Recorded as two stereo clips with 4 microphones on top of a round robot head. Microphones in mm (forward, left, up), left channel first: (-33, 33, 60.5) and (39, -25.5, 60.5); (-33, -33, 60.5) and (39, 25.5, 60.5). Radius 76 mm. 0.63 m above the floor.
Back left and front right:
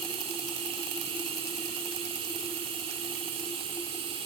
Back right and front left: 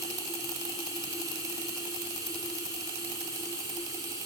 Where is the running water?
10° right, 3.5 m.